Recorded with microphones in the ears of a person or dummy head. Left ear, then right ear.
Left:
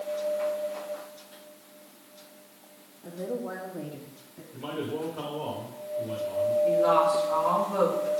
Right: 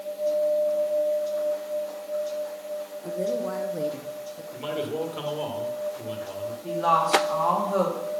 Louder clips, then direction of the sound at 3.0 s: Right 6 dB; 60° right (ahead or behind).